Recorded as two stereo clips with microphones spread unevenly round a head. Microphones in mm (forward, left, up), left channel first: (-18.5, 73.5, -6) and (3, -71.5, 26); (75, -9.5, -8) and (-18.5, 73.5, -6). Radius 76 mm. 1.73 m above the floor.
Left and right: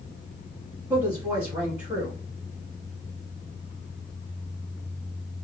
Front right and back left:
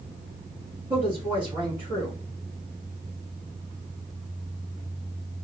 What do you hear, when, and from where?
0.9 s a woman speaking: 155° right, 2.5 m